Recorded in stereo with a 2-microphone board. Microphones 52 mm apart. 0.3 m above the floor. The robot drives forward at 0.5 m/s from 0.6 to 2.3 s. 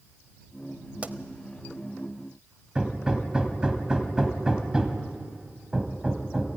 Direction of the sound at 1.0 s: 30° right (ahead or behind).